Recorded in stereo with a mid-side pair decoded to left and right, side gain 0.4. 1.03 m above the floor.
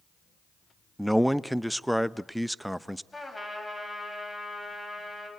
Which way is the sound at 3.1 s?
15° left.